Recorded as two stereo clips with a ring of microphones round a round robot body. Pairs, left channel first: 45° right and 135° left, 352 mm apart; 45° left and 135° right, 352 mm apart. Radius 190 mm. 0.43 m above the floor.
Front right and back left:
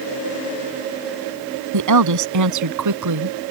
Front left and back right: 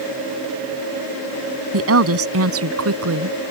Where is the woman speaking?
175° left.